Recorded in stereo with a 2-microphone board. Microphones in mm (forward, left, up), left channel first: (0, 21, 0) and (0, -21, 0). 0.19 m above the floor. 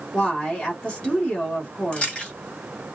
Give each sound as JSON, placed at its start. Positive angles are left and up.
{"t": 0.1, "sound": "a woman speaking", "side_deg": 30, "distance_m": 1.2}
{"t": 1.9, "sound": "chewing", "side_deg": 35, "distance_m": 1.7}